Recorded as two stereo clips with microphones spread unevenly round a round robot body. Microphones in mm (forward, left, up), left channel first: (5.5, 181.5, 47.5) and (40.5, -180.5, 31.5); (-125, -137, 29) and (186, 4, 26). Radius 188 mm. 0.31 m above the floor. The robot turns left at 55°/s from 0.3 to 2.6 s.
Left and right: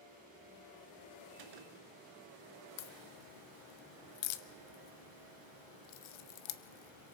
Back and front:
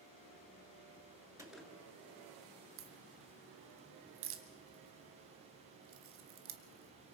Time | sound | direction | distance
1.4 | a gunshot | 55° right | 2.5 m
2.8 | a crack | 80° left | 0.7 m